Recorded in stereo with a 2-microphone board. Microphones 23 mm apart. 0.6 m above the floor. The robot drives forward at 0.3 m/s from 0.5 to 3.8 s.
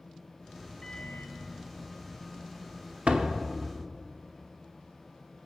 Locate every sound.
0.8 s a microwave: 40° left (ahead or behind), 0.9 m
3.1 s a door slam: 55° right (ahead or behind), 1.0 m; by 3.4 s 60° right (ahead or behind), 1.0 m